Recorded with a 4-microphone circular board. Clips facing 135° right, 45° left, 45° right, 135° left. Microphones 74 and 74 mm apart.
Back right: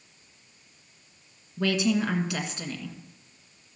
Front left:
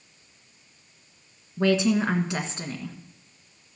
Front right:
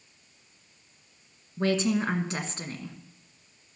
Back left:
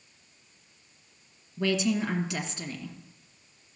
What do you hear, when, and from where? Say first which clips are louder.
1.6 s a woman speaking: front left 3 dB, front right 1 dB; 10° right, 1.7 m